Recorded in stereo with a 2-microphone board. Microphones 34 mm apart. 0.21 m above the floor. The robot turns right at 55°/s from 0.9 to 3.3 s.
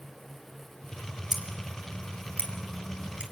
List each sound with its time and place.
1.3 s scissors: 5° right (ahead or behind), 2.0 m; by 3.2 s 35° right (ahead or behind), 2.0 m